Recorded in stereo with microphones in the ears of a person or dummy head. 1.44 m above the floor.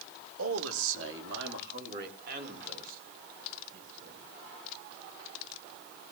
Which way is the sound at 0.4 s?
90° right.